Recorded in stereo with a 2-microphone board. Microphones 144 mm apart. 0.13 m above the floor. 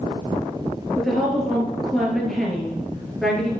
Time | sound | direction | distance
1.0 | a woman speaking | 5° left (ahead or behind) | 2.5 m